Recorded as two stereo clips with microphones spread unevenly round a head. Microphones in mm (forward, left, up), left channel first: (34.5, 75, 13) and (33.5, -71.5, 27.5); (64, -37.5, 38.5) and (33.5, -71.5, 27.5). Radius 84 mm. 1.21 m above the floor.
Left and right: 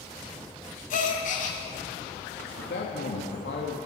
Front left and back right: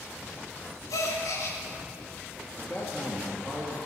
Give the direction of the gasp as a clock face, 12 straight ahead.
10 o'clock.